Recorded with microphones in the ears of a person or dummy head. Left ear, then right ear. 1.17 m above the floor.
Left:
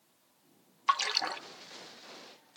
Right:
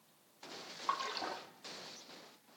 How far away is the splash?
About 1.1 m.